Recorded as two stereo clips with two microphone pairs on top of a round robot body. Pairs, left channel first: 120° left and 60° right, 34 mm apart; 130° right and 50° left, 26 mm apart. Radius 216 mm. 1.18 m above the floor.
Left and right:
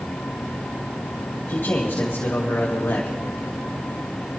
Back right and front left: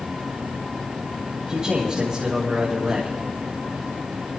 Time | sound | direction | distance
1.5 | a man speaking | 110° left | 2.5 m